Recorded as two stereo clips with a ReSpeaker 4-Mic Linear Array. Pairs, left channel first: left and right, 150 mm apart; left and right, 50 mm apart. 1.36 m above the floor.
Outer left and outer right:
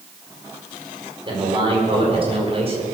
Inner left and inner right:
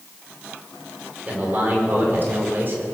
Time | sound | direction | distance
1.3 | a man speaking | 35° right (ahead or behind) | 5 m